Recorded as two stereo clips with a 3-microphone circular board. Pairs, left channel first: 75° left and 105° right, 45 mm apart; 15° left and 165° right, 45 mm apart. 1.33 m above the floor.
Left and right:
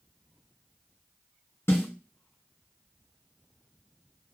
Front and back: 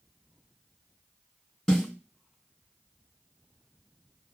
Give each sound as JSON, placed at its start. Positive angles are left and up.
{"t": 1.7, "sound": "a snare drum", "azimuth_deg": 95, "distance_m": 3.0}